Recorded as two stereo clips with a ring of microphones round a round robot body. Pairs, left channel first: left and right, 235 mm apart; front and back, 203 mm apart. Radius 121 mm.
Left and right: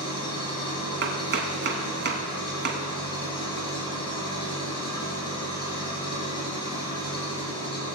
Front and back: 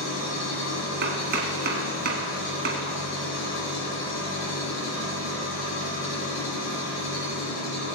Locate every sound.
0.0 s an engine running: 20° left, 4 m
1.0 s chopping: 135° right, 1.8 m